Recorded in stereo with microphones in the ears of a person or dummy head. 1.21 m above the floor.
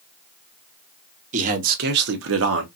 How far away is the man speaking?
About 1.1 m.